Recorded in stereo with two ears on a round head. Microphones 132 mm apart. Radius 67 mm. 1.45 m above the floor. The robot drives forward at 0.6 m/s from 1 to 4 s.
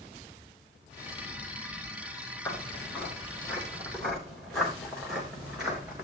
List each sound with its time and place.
2.5 s footsteps: 15° left (ahead or behind), 5 m; by 6.0 s 10° right (ahead or behind), 4.5 m